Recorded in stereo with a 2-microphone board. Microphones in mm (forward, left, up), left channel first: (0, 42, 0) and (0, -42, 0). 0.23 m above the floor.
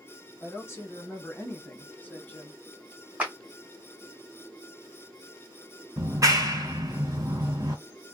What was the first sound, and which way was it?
A woman speaking, 30° left (ahead or behind).